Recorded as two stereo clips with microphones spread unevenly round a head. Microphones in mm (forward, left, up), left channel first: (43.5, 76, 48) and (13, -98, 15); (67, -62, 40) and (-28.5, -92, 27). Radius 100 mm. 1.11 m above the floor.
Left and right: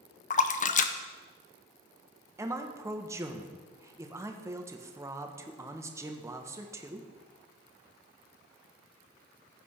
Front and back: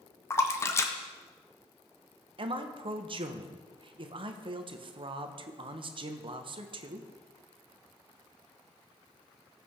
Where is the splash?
70° left, 0.7 m.